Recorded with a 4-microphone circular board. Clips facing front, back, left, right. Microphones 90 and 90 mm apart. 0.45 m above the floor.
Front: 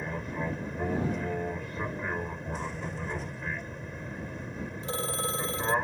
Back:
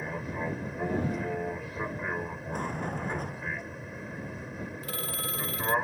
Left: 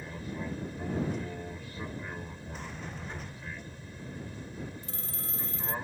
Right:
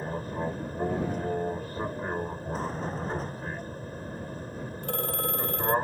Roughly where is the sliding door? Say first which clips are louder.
Back 6 dB, right 10 dB; behind right.